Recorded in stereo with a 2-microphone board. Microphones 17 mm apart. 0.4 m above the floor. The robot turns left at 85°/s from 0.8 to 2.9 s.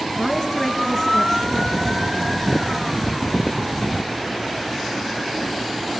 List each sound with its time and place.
0.2 s a woman speaking: 170° right, 3.5 m; by 2.4 s 50° left, 3.5 m